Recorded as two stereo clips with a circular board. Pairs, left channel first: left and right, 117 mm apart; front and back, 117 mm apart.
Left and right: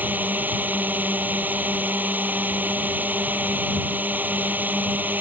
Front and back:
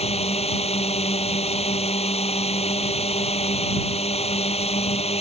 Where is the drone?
15° right.